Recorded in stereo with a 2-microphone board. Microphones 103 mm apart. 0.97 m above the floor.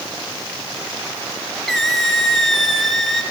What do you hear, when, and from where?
1.7 s a squeak: centre (ahead or behind), 1.9 m